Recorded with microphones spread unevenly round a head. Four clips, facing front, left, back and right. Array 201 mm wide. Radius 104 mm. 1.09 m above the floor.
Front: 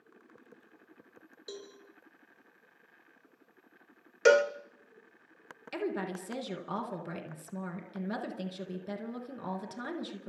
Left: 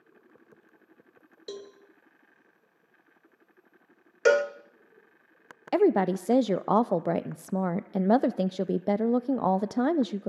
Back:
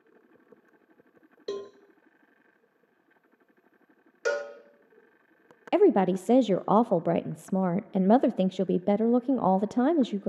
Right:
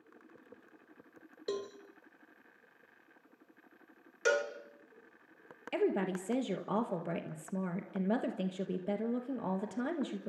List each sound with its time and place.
1.5 s a cowbell: 170° right, 1.2 m
4.2 s a cowbell: 55° left, 1.3 m
5.7 s a woman speaking: 150° left, 0.7 m